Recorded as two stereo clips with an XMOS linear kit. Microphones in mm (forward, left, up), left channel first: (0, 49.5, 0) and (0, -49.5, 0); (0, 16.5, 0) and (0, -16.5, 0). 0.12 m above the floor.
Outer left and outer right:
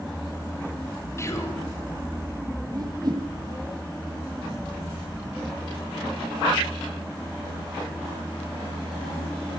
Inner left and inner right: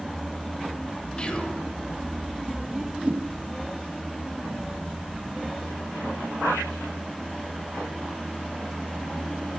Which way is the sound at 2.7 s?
45° right (ahead or behind).